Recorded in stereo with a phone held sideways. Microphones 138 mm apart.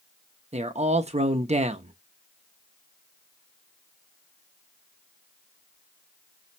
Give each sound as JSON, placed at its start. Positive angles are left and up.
{"t": 0.5, "sound": "a man speaking", "side_deg": -50, "distance_m": 0.5}